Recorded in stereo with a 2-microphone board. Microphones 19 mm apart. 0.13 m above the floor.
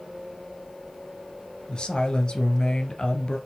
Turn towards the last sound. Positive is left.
turn(degrees=45)  # may be behind; listen again after turning